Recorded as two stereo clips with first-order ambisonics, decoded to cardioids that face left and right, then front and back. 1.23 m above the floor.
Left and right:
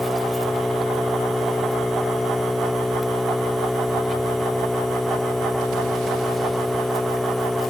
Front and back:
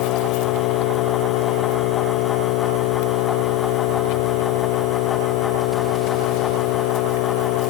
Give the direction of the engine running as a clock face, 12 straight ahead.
12 o'clock.